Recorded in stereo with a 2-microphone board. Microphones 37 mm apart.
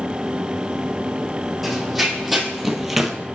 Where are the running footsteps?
Centre (ahead or behind), 1.6 m; by 3.1 s 5° right (ahead or behind), 0.8 m.